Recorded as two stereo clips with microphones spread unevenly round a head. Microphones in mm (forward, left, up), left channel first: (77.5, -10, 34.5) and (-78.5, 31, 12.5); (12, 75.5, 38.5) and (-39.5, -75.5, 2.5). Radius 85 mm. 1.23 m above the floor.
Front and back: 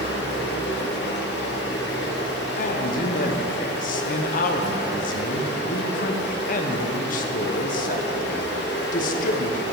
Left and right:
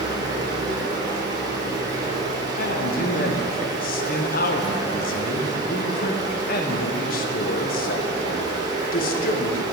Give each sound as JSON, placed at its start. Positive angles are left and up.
{"t": 0.0, "sound": "running water", "azimuth_deg": -35, "distance_m": 1.0}
{"t": 2.6, "sound": "a man speaking", "azimuth_deg": 30, "distance_m": 0.6}